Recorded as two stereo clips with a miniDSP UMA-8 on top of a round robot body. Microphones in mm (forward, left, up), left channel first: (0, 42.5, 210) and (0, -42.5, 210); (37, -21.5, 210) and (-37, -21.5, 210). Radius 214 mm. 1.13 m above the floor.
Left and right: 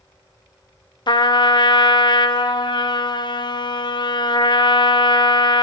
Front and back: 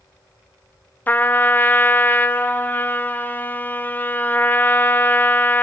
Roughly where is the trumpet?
Ahead left.